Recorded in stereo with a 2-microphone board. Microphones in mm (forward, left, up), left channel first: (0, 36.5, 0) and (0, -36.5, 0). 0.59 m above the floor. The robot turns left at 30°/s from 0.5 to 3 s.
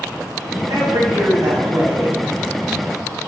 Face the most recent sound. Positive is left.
turn(degrees=-170)